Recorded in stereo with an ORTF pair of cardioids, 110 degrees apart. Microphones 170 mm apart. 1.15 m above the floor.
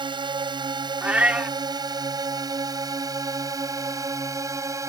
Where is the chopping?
I don't hear chopping.